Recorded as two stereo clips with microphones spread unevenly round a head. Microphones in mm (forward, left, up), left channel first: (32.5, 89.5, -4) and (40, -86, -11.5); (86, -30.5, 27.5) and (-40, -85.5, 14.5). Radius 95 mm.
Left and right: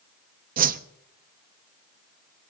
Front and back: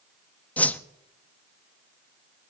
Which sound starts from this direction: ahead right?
A whoosh, at 0.6 s.